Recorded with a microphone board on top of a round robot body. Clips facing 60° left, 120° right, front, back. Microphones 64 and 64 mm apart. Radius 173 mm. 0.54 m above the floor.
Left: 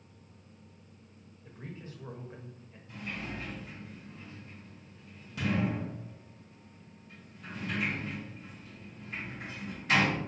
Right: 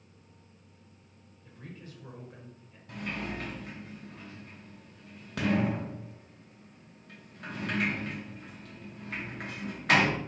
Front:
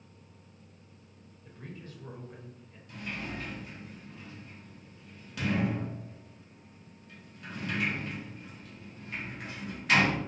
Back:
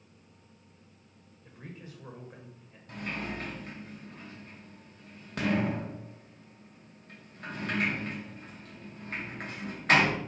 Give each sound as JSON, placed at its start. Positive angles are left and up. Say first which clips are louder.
{"t": 1.4, "sound": "a man speaking", "louder": "left 2 dB, front 1 dB", "azimuth_deg": 110, "distance_m": 1.1}
{"t": 2.9, "sound": "a sliding door", "louder": "right 3 dB, back 2 dB", "azimuth_deg": -140, "distance_m": 0.8}